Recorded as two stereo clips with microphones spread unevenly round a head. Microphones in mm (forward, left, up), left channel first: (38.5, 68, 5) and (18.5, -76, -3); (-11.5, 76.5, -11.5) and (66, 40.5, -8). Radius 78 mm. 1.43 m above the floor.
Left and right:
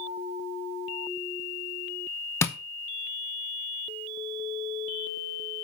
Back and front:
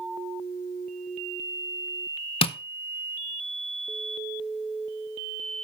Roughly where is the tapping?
Behind left.